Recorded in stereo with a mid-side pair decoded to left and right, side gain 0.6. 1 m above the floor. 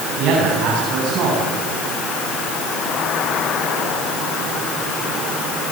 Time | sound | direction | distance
0.2 | a man speaking | 60° right | 9.5 m